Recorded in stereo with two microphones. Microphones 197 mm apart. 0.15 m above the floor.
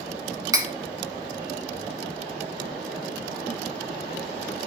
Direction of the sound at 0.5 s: 20° right (ahead or behind).